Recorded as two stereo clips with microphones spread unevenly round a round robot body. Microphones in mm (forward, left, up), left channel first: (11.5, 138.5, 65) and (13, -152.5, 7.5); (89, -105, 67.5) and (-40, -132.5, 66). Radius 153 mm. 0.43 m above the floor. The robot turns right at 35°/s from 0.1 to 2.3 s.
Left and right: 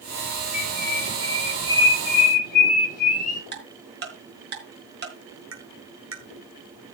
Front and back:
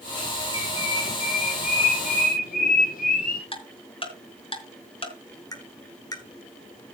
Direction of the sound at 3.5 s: 35° right.